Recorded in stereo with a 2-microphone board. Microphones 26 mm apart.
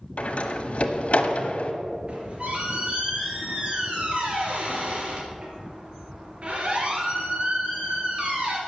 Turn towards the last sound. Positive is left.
turn(degrees=-50)  # may be behind; listen again after turning